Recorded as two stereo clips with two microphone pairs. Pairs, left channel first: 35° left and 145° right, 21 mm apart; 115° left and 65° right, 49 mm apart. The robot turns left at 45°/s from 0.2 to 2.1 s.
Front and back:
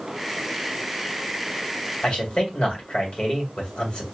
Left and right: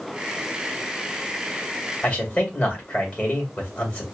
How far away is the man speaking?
About 2 m.